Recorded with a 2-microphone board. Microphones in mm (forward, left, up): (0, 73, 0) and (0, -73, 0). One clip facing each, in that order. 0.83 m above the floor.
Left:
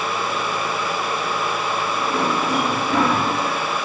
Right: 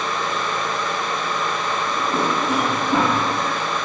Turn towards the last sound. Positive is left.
turn(degrees=-55)  # may be behind; listen again after turning